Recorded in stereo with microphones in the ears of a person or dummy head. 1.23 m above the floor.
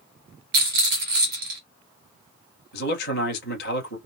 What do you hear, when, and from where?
0.5 s a rattle: 50° right (ahead or behind), 1.6 m
2.7 s a man speaking: 60° left (ahead or behind), 1.2 m